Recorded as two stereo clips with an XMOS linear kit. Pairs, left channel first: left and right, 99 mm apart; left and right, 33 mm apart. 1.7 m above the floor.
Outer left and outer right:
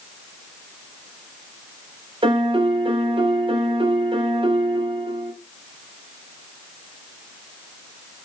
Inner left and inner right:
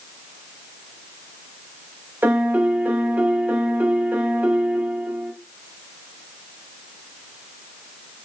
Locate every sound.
2.2 s a piano: 60° right (ahead or behind), 0.5 m